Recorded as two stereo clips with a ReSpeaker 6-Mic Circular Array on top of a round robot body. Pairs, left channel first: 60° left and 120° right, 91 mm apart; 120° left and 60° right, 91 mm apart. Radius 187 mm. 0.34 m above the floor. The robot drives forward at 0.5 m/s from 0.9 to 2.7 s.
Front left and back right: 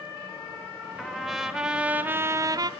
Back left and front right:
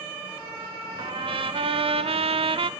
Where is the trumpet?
25° right, 1.1 m; by 2.7 s 80° right, 0.6 m.